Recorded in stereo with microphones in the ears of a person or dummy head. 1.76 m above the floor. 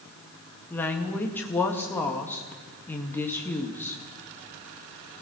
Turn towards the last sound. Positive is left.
turn(degrees=10)  # may be behind; listen again after turning